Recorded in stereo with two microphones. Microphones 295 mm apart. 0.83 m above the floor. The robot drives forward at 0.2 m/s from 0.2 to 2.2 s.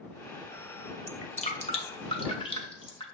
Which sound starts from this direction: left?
Dripping, at 1.1 s.